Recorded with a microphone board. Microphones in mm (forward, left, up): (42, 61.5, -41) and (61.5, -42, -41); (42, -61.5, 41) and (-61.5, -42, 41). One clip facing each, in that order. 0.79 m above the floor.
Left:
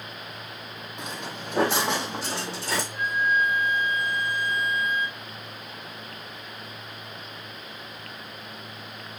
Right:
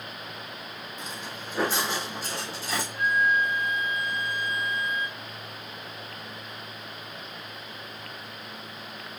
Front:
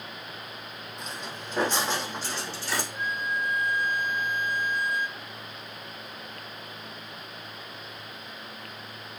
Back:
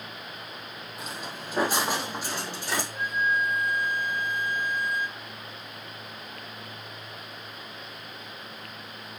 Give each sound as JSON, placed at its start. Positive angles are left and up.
{"t": 1.0, "sound": "footsteps", "azimuth_deg": 85, "distance_m": 1.9}
{"t": 2.9, "sound": "a flute", "azimuth_deg": 55, "distance_m": 1.8}